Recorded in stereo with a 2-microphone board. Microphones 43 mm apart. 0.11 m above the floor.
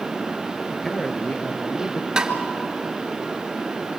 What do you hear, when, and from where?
0.7 s a man speaking: 5° left (ahead or behind), 2.5 m; by 2.1 s 50° left (ahead or behind), 2.5 m
2.2 s tapping: 15° right (ahead or behind), 1.6 m